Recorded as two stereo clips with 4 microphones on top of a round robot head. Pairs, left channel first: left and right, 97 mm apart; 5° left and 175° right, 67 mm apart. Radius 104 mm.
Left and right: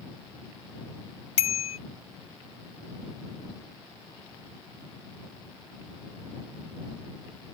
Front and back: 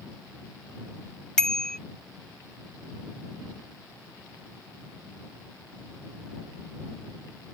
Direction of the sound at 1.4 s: 85° left.